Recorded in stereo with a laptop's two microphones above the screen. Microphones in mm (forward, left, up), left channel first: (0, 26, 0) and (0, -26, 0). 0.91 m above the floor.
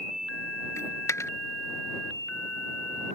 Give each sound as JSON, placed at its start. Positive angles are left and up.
{"t": 0.8, "sound": "a dropped coin", "side_deg": 65}